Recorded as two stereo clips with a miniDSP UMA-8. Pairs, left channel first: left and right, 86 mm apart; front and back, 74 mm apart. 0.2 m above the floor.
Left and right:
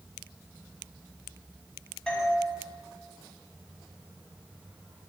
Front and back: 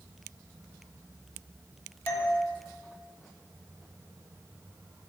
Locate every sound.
2.1 s a doorbell: 20° left, 1.6 m